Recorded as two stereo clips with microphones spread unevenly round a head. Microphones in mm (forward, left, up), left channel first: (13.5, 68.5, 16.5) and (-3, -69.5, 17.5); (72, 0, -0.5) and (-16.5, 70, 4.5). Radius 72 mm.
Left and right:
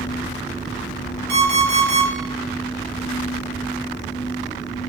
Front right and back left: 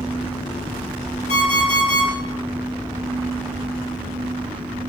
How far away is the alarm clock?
About 1.1 m.